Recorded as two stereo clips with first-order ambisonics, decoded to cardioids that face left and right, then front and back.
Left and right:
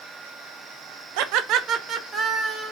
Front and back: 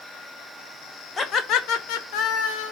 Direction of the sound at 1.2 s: 75° right.